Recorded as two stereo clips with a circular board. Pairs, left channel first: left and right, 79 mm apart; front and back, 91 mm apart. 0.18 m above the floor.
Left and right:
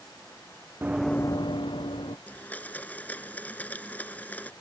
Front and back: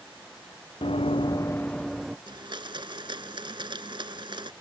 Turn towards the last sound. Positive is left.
turn(degrees=155)